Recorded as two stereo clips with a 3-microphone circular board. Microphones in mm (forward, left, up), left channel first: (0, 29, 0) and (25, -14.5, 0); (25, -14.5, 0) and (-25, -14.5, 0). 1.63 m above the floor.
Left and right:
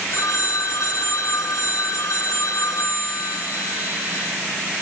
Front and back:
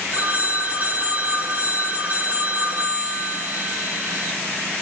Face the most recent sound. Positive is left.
turn(degrees=125)